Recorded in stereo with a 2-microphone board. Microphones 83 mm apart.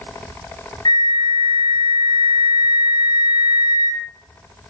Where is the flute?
60° left (ahead or behind), 1.5 m.